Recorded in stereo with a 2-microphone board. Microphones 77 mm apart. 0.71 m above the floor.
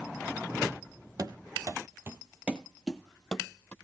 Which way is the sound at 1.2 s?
55° right (ahead or behind).